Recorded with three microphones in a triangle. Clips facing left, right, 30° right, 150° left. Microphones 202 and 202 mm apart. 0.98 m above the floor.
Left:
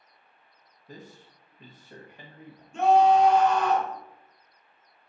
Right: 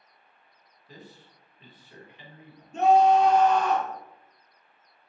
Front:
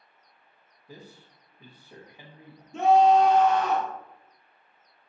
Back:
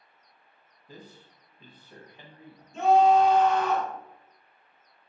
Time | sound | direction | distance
0.9 | a man speaking | 50° left | 1.0 m
2.7 | a scream | 40° right | 1.9 m